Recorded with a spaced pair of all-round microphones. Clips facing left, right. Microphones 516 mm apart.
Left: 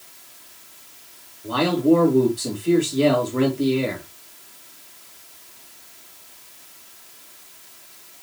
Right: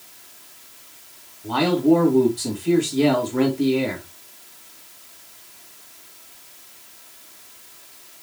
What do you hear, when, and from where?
1.4 s a man speaking: 10° right (ahead or behind), 2.5 m